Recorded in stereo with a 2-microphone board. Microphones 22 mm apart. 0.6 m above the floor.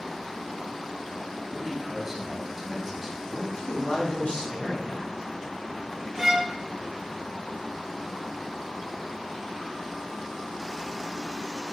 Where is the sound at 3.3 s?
60° left (ahead or behind), 3.5 m.